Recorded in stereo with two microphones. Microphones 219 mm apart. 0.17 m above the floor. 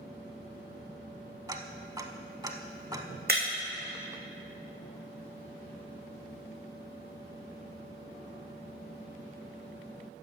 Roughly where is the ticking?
Centre.